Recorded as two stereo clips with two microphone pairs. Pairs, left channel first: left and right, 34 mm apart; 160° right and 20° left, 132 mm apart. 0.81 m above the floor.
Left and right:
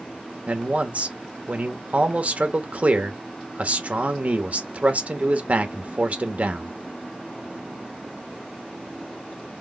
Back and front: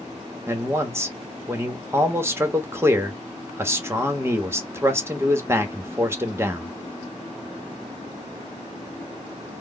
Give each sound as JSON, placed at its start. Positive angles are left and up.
{"t": 0.5, "sound": "a man speaking", "azimuth_deg": -50, "distance_m": 1.0}